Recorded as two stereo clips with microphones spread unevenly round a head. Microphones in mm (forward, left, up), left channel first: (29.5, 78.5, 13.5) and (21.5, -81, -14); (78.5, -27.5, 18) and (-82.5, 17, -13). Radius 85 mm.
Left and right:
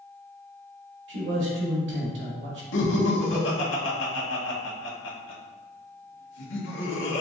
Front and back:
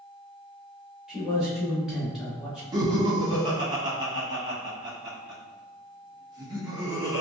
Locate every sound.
1.1 s a man speaking: 110° right, 1.4 m
2.7 s laughter: 95° left, 1.2 m